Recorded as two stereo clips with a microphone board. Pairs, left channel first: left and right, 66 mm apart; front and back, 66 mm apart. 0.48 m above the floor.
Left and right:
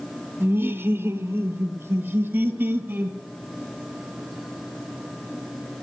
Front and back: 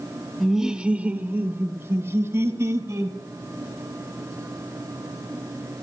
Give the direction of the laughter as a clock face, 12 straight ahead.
3 o'clock.